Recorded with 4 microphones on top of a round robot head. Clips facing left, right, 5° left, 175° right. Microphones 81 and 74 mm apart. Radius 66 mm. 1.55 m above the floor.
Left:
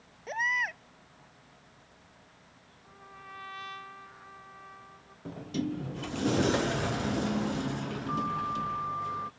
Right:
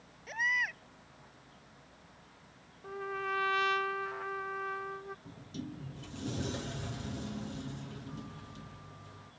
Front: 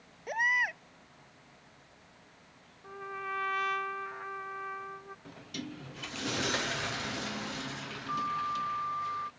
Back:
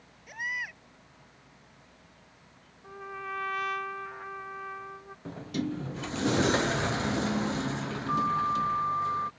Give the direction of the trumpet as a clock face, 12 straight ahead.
3 o'clock.